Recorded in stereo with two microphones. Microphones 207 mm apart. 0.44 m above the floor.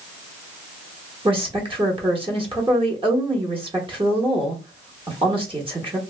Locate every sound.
1.2 s a woman speaking: 25° right (ahead or behind), 1.0 m